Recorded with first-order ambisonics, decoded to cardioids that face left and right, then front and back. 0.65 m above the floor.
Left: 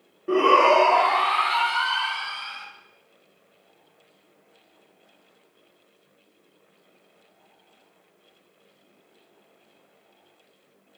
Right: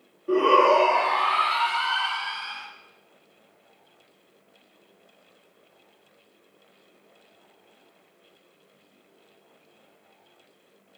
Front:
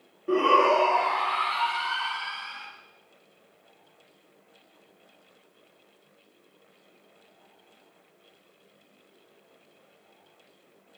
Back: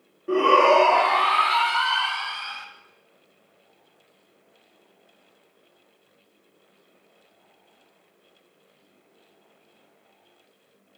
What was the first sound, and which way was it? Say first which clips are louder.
A shout: left 1 dB, back 4 dB; 90° left.